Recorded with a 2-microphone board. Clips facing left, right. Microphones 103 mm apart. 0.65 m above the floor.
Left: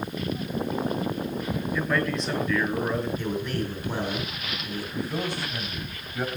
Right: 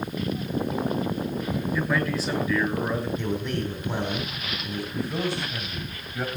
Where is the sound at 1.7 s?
5° right (ahead or behind), 4 m.